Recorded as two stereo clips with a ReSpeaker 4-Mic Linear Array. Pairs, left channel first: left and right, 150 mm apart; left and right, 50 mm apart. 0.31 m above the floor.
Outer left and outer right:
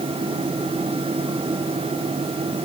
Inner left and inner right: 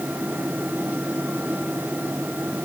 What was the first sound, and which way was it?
Only background noise.